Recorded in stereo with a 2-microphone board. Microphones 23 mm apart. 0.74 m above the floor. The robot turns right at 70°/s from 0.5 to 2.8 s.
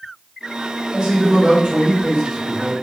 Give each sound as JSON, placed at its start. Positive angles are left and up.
{"t": 0.9, "sound": "a man speaking", "azimuth_deg": -135, "distance_m": 0.8}